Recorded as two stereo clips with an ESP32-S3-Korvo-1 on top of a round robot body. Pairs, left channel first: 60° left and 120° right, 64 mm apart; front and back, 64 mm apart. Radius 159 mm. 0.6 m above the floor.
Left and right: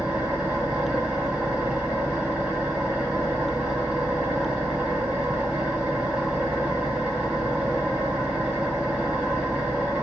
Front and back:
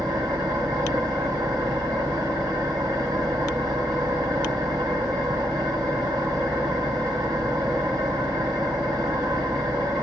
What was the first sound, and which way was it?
An engine running, 165° left.